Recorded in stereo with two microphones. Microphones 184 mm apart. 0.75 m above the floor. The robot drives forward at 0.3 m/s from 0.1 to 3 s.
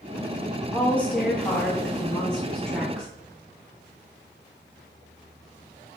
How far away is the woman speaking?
About 0.6 m.